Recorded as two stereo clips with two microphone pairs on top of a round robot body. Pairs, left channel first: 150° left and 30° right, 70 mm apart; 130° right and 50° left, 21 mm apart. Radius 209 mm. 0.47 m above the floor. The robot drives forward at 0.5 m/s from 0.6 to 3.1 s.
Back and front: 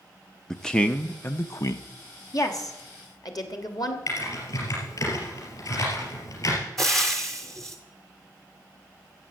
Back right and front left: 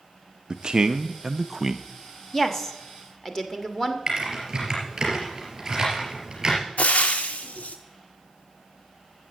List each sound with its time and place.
0.5 s a man speaking: 60° left, 0.9 m; by 1.8 s 140° left, 1.0 m
2.3 s a woman speaking: 160° left, 1.7 m; by 4.0 s 165° left, 1.9 m
4.1 s typing on a keyboard: 120° left, 3.5 m
6.8 s frying: 125° right, 0.5 m